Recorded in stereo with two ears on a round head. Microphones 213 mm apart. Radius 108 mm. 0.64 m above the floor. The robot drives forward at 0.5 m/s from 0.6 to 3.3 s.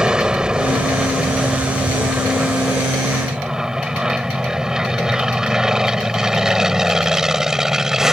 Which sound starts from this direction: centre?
An aircraft, at 0.0 s.